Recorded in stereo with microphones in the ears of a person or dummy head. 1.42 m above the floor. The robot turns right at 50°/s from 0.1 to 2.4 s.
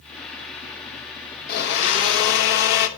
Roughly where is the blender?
Left.